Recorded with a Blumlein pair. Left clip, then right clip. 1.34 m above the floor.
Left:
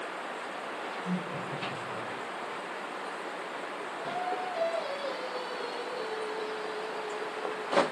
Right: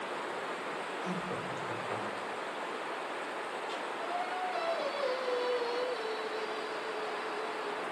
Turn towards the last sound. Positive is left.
turn(degrees=-65)